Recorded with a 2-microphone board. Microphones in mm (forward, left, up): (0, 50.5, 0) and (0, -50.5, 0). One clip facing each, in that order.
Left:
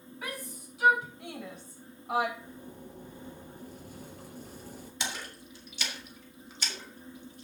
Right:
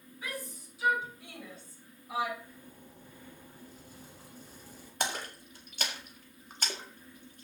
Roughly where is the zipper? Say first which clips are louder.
Left 6 dB; left.